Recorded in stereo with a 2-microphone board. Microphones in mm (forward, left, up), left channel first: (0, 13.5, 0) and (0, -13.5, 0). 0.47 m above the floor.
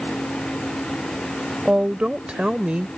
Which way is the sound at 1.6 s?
50° right (ahead or behind).